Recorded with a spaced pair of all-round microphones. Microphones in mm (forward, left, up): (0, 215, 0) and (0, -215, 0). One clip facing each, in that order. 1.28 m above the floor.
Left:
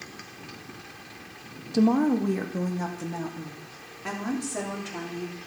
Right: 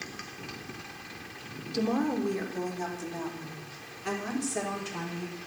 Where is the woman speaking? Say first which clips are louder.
Left 7 dB; 65° left (ahead or behind), 0.8 m; by 5.4 s 75° left (ahead or behind), 3.5 m.